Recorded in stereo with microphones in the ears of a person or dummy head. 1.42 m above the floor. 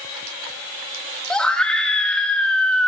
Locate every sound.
1.3 s a scream: 5° left (ahead or behind), 2.5 m